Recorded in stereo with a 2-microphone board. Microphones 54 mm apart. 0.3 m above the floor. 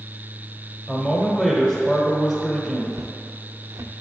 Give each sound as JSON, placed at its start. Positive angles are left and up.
{"t": 0.9, "sound": "a man speaking", "side_deg": 10, "distance_m": 1.2}
{"t": 2.9, "sound": "footsteps", "side_deg": -65, "distance_m": 0.8}